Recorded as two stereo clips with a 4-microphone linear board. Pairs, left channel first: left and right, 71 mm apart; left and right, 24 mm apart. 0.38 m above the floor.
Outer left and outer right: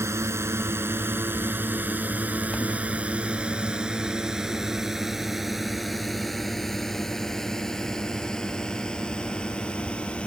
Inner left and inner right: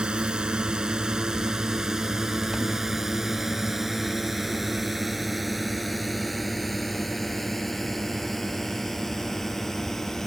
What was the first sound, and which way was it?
A drone, 40° right (ahead or behind).